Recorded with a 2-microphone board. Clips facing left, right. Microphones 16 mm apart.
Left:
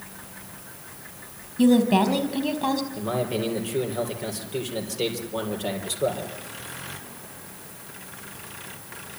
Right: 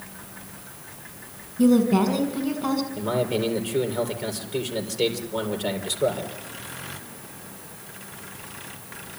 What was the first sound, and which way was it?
A woman speaking, 70° left (ahead or behind).